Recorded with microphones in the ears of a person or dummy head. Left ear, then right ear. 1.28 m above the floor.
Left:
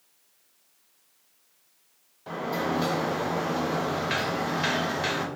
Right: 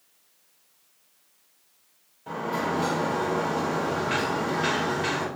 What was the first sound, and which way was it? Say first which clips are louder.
A sliding door: right 1 dB; 20° left (ahead or behind).